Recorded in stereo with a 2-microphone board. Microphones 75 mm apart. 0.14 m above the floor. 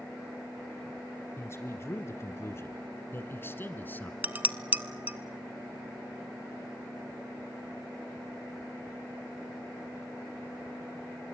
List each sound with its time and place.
1.4 s a man speaking: 35° left (ahead or behind), 2 m; by 4.1 s 25° left (ahead or behind), 1.7 m
4.2 s dishes clattering: 20° right (ahead or behind), 0.7 m